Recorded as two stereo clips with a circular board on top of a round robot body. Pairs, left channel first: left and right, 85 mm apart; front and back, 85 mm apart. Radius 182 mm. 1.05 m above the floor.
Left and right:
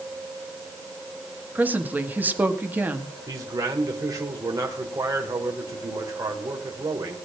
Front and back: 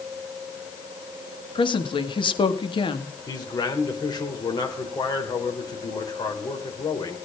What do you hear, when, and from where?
1.6 s a woman speaking: 20° right, 2 m
3.3 s a man speaking: 40° right, 4 m